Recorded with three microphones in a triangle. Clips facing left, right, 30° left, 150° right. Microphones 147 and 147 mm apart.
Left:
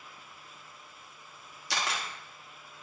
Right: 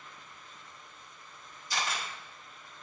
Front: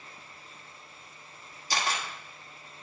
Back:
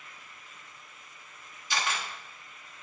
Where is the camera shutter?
80° left, 1.5 m.